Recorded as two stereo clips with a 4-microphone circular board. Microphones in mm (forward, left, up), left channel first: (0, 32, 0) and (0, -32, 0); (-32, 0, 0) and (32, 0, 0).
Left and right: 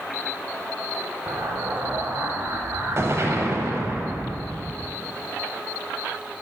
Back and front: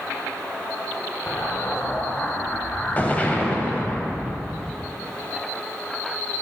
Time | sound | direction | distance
1.3 | an explosion | 120° right | 0.7 m